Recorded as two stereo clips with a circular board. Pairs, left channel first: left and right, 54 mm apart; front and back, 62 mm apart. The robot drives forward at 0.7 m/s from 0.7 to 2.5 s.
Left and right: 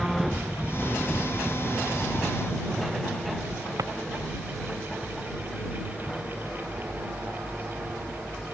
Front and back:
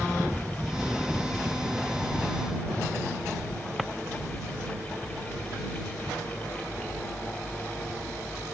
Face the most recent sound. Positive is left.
turn(degrees=-95)